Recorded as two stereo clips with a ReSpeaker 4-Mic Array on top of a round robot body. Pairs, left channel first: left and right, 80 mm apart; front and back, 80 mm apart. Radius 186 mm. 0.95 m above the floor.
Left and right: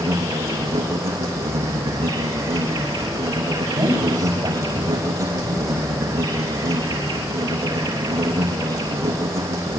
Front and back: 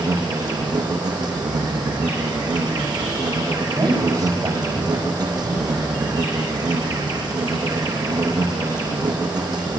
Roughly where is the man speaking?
Behind right.